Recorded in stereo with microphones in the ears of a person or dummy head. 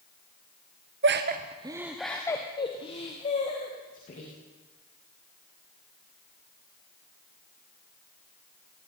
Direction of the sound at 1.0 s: 55° right (ahead or behind).